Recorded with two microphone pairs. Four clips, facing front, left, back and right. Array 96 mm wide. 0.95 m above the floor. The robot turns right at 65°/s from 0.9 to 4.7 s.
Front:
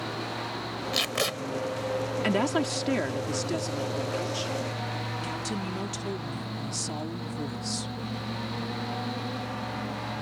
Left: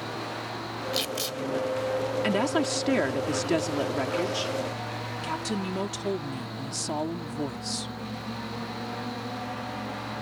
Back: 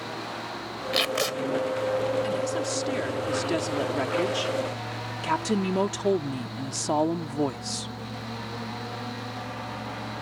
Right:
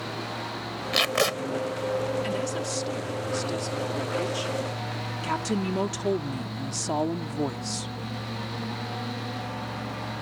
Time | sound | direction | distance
0.9 | tape being pulled | 110° right | ?
2.2 | a woman speaking | 35° left | ?